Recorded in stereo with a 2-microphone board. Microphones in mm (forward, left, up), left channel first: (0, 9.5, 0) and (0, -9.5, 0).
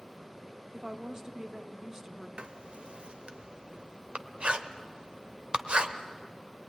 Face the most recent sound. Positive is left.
turn(degrees=-60)  # may be behind; listen again after turning